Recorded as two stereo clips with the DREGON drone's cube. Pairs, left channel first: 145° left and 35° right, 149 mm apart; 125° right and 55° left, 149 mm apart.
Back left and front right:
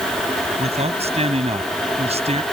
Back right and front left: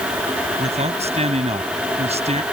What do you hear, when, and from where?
0.6 s a man speaking: 10° left